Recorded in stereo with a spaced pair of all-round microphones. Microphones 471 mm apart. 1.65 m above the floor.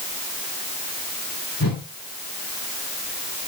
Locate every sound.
1.6 s a whoosh: 45° left (ahead or behind), 2.5 m